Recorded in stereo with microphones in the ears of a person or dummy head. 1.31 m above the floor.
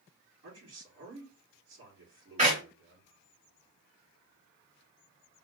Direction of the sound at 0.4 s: 70° right (ahead or behind).